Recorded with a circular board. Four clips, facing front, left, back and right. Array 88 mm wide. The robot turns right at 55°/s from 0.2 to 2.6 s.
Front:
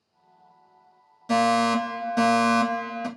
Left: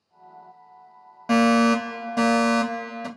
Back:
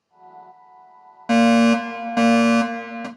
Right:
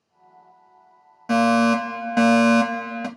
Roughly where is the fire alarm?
Behind.